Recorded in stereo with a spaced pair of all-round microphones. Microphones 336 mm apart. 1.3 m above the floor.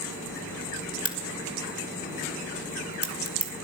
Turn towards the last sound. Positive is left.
turn(degrees=40)  # may be behind; listen again after turning